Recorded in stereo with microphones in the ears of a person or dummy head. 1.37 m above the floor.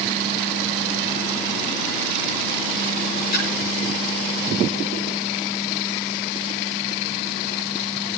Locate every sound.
3.3 s a splash: 55° left (ahead or behind), 4 m